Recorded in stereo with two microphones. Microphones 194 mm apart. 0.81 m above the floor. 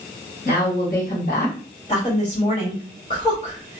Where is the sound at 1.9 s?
30° left (ahead or behind), 1.4 m.